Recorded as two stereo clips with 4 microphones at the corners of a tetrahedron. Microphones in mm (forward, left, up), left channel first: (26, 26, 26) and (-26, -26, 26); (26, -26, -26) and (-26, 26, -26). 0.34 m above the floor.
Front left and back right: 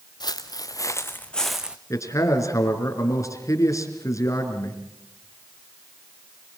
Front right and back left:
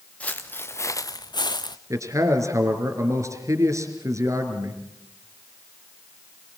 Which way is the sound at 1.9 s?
90° left.